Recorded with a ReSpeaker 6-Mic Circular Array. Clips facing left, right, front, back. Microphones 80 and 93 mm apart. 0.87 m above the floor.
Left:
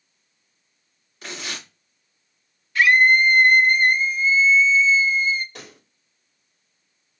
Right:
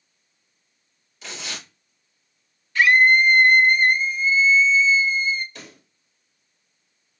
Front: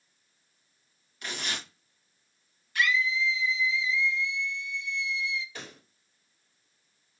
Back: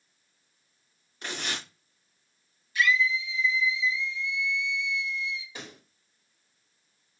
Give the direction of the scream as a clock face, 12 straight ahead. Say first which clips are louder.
Even, back 2 dB; 12 o'clock.